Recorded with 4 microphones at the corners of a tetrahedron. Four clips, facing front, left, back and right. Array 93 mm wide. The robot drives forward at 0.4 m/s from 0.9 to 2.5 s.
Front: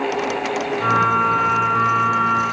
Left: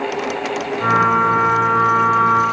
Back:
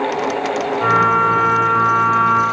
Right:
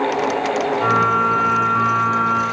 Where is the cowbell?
No cowbell in this recording.